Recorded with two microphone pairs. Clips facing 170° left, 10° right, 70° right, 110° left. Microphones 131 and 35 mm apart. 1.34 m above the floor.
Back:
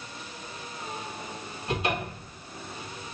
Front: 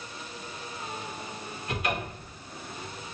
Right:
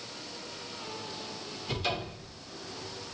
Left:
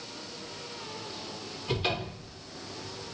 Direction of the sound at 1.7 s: 135° left.